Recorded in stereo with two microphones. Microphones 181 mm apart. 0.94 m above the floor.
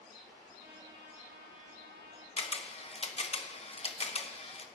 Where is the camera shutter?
35° left (ahead or behind), 0.9 m.